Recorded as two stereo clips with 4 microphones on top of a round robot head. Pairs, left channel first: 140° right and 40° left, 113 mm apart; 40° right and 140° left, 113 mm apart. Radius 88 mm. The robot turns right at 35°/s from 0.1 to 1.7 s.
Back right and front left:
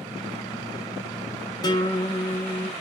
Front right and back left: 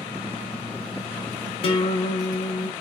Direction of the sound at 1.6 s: 80° right.